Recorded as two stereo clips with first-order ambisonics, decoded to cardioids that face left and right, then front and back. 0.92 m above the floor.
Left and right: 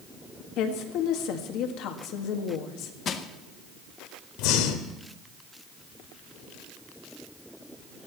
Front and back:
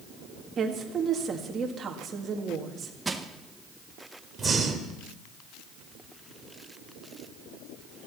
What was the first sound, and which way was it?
A woman speaking, 115° left.